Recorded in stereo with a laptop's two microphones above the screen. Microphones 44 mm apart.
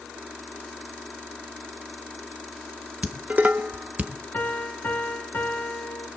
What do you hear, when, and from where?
3.0 s dishes clattering: 35° right (ahead or behind), 1.4 m
4.3 s a piano: 45° left (ahead or behind), 4 m